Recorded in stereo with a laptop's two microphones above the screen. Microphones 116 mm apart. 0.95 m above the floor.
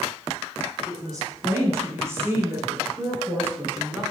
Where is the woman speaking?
30° right (ahead or behind), 5.5 m; by 4.0 s 15° right (ahead or behind), 9.5 m.